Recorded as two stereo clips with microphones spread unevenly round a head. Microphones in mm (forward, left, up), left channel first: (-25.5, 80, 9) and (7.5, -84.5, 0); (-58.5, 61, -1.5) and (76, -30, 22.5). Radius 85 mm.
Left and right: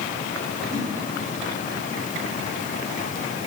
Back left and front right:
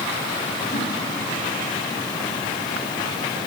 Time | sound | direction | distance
0.7 | a whoosh | 150° right | 7.5 m